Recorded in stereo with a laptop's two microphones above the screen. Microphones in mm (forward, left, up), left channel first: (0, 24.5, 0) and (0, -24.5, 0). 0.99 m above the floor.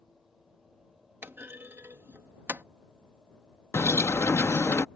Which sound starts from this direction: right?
A clunk, at 1.2 s.